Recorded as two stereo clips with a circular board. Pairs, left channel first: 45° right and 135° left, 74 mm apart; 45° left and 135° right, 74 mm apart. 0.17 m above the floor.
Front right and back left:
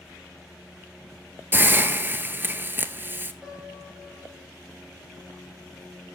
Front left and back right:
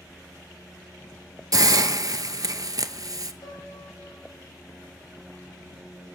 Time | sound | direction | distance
1.5 | a hiss | 165° right | 0.5 m
3.4 | a piano | 55° left | 2.5 m